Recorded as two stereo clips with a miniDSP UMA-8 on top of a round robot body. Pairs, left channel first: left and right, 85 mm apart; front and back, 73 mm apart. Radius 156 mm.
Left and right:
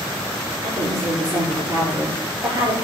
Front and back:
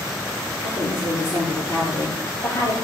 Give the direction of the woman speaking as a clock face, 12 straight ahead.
2 o'clock.